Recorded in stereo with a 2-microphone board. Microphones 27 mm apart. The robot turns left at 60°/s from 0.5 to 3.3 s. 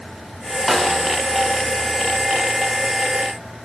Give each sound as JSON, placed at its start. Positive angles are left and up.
{"t": 0.7, "sound": "a snare drum", "side_deg": 0, "distance_m": 0.8}